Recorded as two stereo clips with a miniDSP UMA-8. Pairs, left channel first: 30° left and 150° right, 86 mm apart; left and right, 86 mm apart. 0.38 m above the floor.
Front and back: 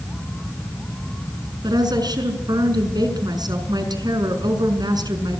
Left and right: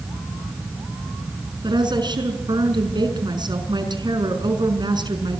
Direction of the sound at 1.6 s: 115° right.